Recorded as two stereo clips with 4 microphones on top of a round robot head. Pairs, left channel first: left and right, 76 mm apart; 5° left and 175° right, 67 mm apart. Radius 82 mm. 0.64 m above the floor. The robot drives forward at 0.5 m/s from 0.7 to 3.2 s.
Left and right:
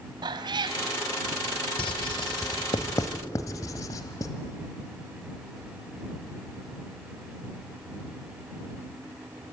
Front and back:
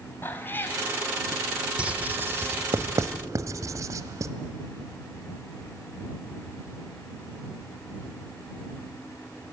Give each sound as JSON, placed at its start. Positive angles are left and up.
{"t": 0.2, "sound": "a cat meowing", "azimuth_deg": -60, "distance_m": 1.5}
{"t": 1.8, "sound": "writing", "azimuth_deg": 115, "distance_m": 0.7}